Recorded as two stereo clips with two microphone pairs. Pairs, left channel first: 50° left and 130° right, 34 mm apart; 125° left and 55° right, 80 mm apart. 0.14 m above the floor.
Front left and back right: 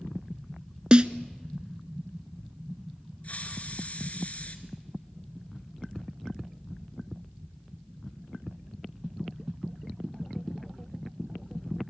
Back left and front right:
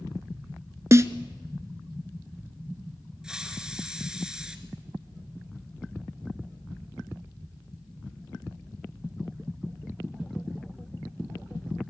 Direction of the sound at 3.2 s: 25° left.